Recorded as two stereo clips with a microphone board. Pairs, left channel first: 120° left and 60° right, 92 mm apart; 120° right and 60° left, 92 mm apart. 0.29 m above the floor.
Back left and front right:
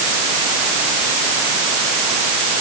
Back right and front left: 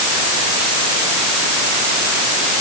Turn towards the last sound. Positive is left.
No sound to turn to.